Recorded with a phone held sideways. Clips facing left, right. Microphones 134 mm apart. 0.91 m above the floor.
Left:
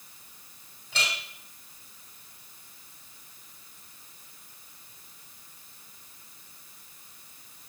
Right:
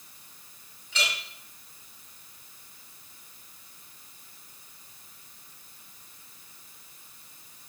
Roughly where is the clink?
Left.